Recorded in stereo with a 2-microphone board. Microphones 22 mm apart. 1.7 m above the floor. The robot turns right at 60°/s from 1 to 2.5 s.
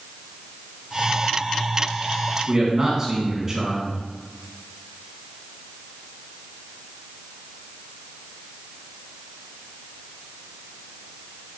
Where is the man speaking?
35° right (ahead or behind), 3 m; by 4.0 s 30° right (ahead or behind), 3 m.